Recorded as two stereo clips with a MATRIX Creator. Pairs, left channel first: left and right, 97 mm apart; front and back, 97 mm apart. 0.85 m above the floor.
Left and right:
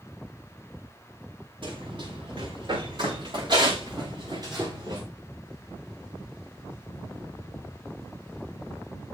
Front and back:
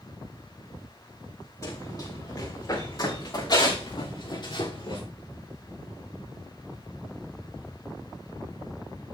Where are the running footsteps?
60° right, 7.5 m; by 5.0 s 40° right, 7 m.